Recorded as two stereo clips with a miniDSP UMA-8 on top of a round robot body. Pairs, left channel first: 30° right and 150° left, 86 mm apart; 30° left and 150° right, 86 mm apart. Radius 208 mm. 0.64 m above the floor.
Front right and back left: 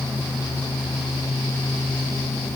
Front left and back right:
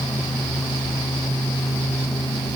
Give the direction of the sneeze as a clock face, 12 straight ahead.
No sneeze in this recording.